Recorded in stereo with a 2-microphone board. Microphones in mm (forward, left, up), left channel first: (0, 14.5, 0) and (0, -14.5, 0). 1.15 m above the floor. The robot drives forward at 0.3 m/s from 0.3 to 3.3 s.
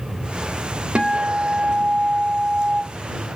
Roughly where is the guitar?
Right.